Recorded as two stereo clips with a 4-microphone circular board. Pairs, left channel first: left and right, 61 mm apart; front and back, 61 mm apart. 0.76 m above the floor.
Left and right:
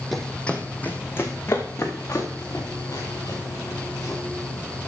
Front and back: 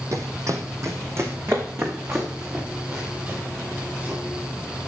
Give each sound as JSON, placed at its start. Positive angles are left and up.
{"t": 0.1, "sound": "running footsteps", "azimuth_deg": 180, "distance_m": 1.4}